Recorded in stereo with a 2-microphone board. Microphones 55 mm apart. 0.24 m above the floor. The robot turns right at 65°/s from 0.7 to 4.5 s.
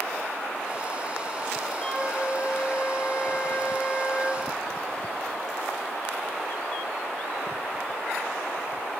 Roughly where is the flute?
Ahead.